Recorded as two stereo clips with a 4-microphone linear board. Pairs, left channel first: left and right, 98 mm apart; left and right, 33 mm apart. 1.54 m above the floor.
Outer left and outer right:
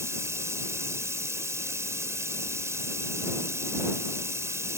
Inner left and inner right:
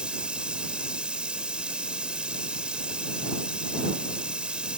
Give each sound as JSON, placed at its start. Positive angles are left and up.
{"t": 0.0, "sound": "running water", "side_deg": -30}